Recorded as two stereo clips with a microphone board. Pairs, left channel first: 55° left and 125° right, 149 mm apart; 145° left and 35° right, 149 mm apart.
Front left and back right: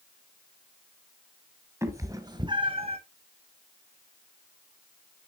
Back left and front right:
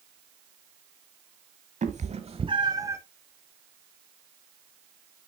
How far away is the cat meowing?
About 1.3 m.